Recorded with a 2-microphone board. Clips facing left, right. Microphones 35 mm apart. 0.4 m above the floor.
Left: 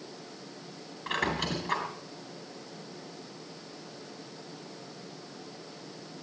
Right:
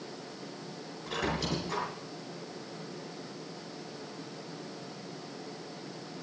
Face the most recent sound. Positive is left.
turn(degrees=60)  # may be behind; listen again after turning